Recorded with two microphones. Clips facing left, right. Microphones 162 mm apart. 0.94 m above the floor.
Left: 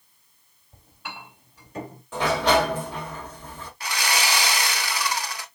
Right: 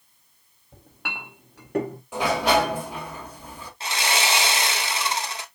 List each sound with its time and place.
0.7 s a clink: 65° right (ahead or behind), 0.9 m
2.1 s a sliding door: 10° right (ahead or behind), 1.3 m
3.8 s sawing: 25° right (ahead or behind), 0.7 m